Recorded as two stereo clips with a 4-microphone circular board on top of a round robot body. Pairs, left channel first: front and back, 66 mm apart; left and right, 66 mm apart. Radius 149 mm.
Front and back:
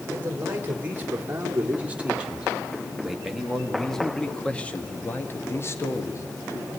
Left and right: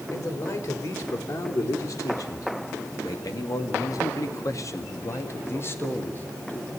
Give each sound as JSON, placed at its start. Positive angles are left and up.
{"t": 0.1, "sound": "a man speaking", "azimuth_deg": 120, "distance_m": 3.0}